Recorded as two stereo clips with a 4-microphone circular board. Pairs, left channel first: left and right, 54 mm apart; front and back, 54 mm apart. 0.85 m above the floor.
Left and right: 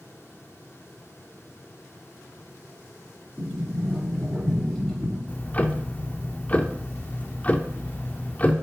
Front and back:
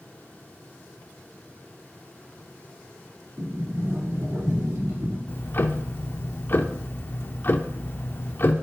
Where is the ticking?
30° left, 0.5 m.